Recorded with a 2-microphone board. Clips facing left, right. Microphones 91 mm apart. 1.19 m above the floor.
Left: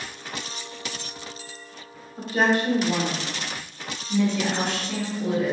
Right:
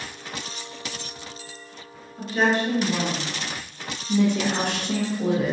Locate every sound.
2.2 s a woman speaking: 45° left (ahead or behind), 1.3 m; by 3.3 s 65° left (ahead or behind), 1.2 m
4.1 s a woman speaking: 55° right (ahead or behind), 1.3 m